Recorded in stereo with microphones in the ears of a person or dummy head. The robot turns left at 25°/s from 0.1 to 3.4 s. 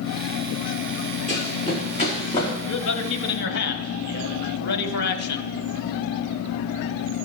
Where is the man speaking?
65° left (ahead or behind), 1.3 m; by 5.5 s 55° left (ahead or behind), 1.3 m.